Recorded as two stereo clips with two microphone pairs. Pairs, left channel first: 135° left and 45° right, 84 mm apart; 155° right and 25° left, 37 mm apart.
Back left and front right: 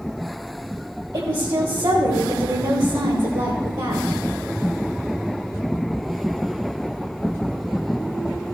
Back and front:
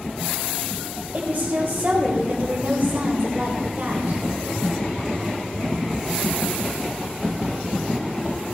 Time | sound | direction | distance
1.1 | a woman speaking | 25° right | 1.8 m